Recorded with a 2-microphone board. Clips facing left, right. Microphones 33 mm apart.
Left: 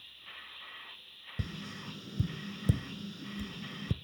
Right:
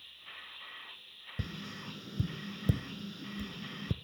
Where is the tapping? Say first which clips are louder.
Even; 5° right (ahead or behind), 0.5 m.